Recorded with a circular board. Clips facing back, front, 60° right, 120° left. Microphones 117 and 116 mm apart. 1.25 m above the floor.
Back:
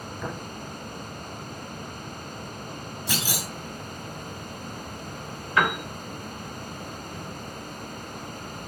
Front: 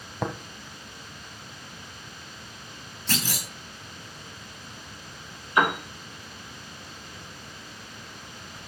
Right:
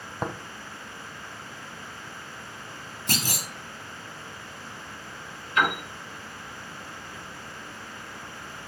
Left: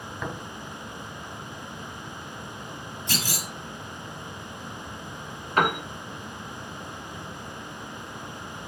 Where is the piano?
70° left, 2 m.